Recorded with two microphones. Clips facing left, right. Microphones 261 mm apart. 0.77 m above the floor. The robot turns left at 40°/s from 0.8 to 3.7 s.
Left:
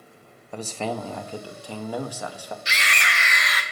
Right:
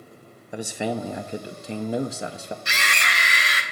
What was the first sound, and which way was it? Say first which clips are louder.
A man speaking: right 2 dB; 15° right (ahead or behind).